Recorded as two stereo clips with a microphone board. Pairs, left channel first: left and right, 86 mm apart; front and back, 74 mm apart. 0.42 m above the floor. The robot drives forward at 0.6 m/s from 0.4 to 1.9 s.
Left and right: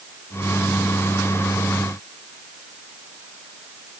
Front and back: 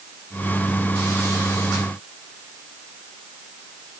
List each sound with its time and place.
Only background noise.